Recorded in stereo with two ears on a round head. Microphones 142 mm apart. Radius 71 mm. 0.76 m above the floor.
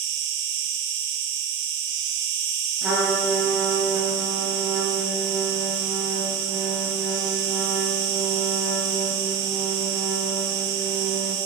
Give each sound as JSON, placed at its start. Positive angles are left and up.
{"t": 0.0, "sound": "an insect", "side_deg": -80, "distance_m": 2.5}
{"t": 2.8, "sound": "a trumpet", "side_deg": -5, "distance_m": 5.5}